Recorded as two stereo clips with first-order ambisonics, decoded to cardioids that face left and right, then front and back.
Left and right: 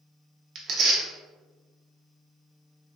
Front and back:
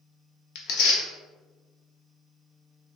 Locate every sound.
0.6 s tearing paper: 30° right, 0.6 m